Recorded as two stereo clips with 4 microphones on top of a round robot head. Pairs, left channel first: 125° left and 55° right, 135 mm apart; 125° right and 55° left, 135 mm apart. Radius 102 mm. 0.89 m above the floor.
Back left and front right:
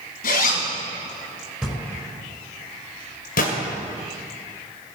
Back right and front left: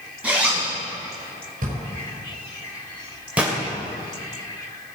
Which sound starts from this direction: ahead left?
A drawer, at 1.6 s.